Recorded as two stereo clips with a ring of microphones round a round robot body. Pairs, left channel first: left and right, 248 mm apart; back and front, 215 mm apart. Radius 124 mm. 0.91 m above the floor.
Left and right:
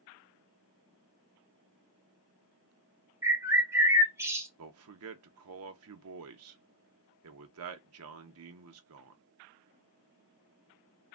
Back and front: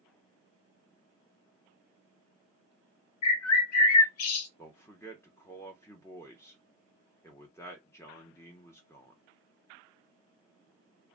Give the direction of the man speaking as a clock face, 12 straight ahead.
3 o'clock.